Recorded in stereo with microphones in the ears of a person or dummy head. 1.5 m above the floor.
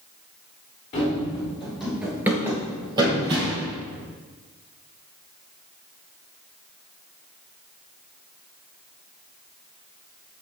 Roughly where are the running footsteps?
Centre.